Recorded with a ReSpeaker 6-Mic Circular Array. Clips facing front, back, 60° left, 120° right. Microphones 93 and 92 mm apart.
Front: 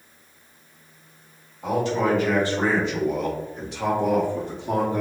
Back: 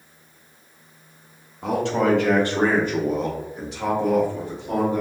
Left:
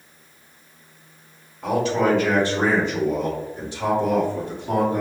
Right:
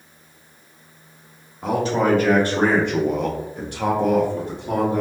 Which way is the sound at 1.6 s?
175° right.